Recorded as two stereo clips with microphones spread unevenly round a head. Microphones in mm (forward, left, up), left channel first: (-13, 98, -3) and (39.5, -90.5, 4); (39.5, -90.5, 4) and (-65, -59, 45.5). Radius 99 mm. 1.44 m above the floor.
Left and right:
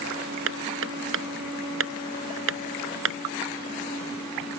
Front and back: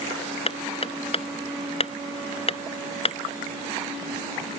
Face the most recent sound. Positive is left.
turn(degrees=-50)